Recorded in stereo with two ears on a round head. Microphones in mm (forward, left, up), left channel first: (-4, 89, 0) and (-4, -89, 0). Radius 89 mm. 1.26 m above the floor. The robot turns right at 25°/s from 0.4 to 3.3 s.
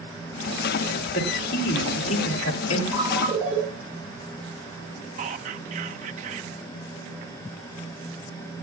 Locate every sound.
1.1 s a man speaking: 45° left, 3 m; by 2.8 s 85° left, 3 m
2.9 s a ringtone: 15° right (ahead or behind), 9.5 m; by 3.6 s 5° right (ahead or behind), 9.5 m
5.2 s whispering: 40° right (ahead or behind), 1.4 m